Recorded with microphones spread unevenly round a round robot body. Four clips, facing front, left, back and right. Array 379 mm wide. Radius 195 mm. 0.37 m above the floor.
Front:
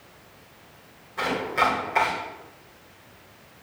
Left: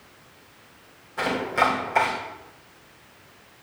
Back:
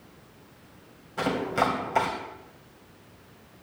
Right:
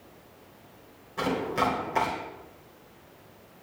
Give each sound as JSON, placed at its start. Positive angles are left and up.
{"t": 1.2, "sound": "chopping", "azimuth_deg": -175, "distance_m": 2.5}